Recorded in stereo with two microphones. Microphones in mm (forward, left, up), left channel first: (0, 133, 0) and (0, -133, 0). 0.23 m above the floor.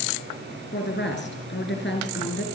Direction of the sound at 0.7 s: 45° left (ahead or behind).